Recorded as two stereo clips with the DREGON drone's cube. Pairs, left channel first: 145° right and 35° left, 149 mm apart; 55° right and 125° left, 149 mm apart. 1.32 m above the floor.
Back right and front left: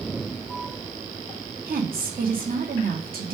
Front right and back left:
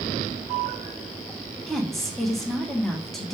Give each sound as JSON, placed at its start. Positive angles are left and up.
{"t": 1.7, "sound": "a woman speaking", "azimuth_deg": 30, "distance_m": 1.2}